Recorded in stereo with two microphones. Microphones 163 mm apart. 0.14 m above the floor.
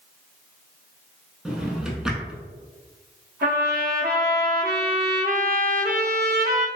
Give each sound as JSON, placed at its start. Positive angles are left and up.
{"t": 1.4, "sound": "a drawer", "side_deg": -5, "distance_m": 0.5}
{"t": 3.4, "sound": "a trumpet", "side_deg": -70, "distance_m": 0.6}